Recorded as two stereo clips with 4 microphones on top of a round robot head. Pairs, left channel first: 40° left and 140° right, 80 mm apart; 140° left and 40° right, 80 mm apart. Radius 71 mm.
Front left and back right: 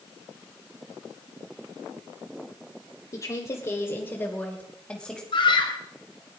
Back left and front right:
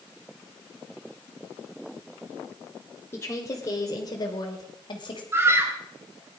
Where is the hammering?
I don't hear hammering.